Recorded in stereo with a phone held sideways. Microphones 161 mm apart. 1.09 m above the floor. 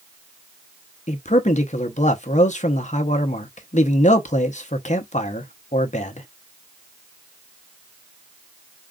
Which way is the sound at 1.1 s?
50° left (ahead or behind).